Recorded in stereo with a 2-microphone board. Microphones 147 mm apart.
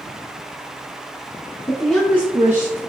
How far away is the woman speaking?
About 1.3 m.